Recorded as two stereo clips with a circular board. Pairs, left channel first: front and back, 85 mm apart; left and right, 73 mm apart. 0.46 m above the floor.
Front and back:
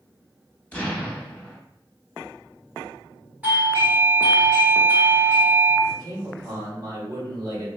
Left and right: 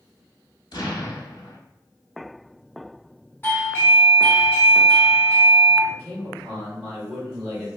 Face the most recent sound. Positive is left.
turn(degrees=-155)